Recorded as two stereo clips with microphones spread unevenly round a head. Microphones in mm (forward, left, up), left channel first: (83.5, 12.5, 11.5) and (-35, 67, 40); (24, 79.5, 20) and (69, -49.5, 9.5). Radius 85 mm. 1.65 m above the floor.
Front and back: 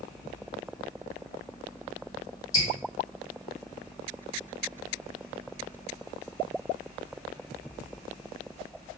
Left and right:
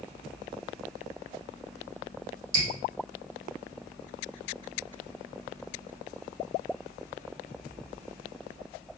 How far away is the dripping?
About 1.4 m.